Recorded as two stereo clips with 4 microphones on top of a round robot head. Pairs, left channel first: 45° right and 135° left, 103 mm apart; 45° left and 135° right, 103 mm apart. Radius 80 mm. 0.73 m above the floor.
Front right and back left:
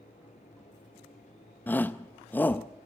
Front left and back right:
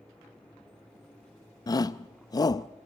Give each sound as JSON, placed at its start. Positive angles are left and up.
{"t": 1.7, "sound": "a shout", "azimuth_deg": 20, "distance_m": 0.5}